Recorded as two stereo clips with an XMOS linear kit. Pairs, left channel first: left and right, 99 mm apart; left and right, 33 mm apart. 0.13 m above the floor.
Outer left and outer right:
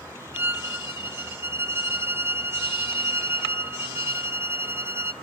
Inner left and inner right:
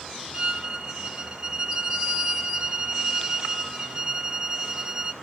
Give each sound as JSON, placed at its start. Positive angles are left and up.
{"t": 0.3, "sound": "a violin", "side_deg": -25, "distance_m": 0.5}